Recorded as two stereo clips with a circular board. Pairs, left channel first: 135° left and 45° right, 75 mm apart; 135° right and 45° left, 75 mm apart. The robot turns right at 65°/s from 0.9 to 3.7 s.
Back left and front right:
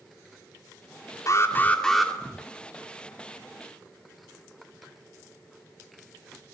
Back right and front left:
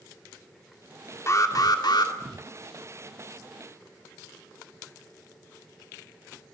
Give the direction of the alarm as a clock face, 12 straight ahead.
6 o'clock.